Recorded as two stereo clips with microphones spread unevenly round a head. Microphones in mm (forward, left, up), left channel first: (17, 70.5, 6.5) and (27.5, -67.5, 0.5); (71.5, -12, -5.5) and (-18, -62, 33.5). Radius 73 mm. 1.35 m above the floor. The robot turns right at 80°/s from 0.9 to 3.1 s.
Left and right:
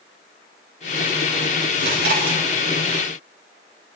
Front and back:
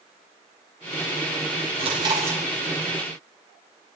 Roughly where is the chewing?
Behind right.